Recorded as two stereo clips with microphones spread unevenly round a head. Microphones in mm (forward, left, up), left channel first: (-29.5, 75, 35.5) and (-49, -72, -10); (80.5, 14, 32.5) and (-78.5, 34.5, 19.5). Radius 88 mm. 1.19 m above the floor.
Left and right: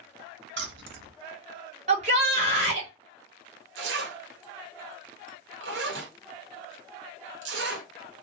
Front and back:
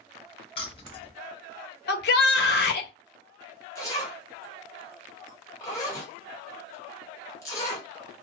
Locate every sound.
0.6 s keys jangling: 70° right, 0.8 m
1.9 s a shout: 40° right, 1.2 m
3.8 s a zipper: 80° right, 1.1 m